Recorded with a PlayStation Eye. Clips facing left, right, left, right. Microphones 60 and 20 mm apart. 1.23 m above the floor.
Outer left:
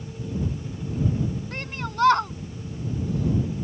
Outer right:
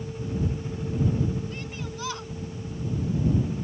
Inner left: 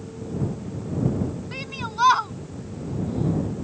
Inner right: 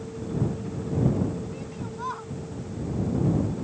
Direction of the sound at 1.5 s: 55° left (ahead or behind).